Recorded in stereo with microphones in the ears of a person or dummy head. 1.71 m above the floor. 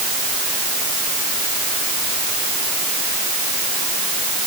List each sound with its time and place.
Only background noise.